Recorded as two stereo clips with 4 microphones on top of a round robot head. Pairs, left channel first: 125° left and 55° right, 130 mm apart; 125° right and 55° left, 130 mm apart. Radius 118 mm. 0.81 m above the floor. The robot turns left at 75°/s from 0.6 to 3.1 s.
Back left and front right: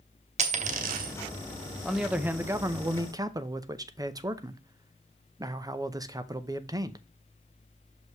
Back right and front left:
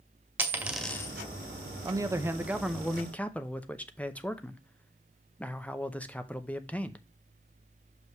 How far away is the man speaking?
About 0.8 m.